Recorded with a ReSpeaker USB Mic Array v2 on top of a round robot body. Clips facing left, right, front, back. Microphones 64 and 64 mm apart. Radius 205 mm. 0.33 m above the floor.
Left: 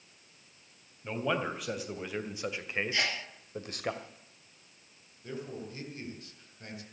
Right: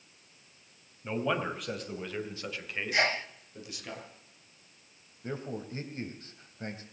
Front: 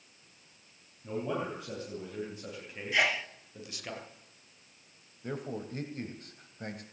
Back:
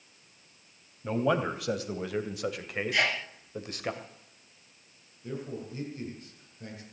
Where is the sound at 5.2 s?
35° right, 3 m.